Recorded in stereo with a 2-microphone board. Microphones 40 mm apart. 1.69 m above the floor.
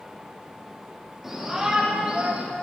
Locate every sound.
1.2 s a shout: 10° right (ahead or behind), 2.5 m; by 2.5 s 45° right (ahead or behind), 1.7 m